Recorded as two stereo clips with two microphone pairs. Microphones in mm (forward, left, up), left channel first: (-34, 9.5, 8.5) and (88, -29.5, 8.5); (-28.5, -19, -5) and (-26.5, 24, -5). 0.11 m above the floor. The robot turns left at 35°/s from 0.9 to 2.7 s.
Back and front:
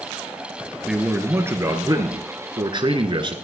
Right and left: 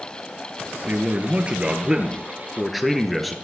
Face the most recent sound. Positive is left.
turn(degrees=-5)